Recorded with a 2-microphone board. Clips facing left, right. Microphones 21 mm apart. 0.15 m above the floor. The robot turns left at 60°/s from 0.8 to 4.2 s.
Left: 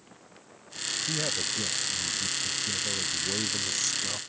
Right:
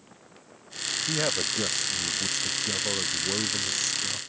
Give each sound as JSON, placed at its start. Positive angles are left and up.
{"t": 1.1, "sound": "a man speaking", "azimuth_deg": -20}